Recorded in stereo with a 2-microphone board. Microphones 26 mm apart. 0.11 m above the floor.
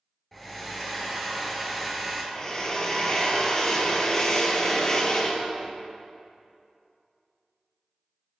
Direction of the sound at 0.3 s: 5° left (ahead or behind).